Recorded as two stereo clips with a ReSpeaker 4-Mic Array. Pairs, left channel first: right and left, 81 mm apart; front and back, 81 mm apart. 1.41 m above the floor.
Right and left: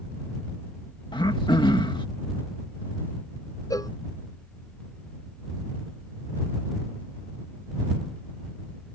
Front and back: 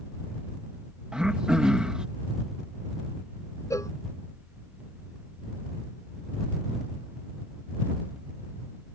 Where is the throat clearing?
100° right.